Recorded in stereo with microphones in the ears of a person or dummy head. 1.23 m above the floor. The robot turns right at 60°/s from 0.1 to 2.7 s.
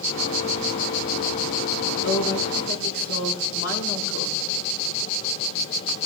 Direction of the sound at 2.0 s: 70° left.